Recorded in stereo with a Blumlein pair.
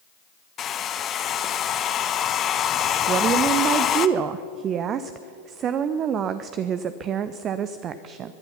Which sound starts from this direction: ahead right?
A woman speaking, at 3.1 s.